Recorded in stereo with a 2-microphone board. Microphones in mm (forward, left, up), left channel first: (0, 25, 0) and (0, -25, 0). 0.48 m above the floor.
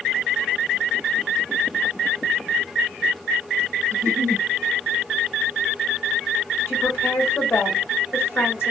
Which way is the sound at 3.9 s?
80° right.